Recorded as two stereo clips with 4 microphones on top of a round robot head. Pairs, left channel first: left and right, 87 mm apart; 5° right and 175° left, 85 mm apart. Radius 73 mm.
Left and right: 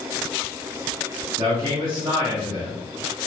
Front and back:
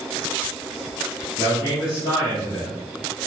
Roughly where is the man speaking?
Ahead right.